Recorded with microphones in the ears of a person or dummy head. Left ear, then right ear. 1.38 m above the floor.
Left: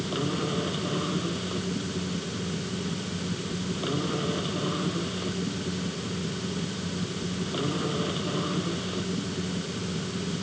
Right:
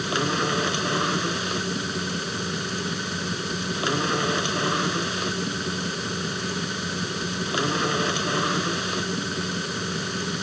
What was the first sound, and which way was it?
A machine running, 65° right (ahead or behind).